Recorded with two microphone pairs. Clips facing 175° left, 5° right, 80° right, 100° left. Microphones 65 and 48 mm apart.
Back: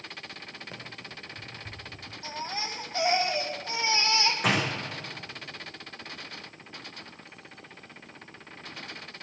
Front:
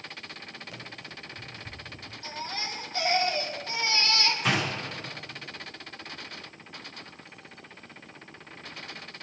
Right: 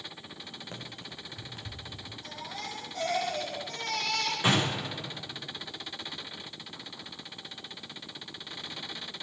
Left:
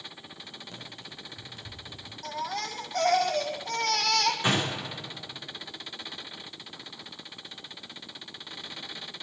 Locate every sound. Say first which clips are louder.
0.7 s running footsteps: even, right 1 dB; 135° right, 3 m; by 2.0 s 140° right, 4 m
2.2 s a baby crying: back 1 dB, left 8 dB; 105° left, 1.6 m
4.4 s a door slam: even, right 1 dB; 155° right, 7 m